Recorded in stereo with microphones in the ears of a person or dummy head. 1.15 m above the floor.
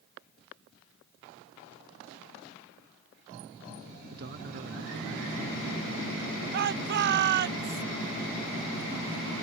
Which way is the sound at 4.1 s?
60° right (ahead or behind).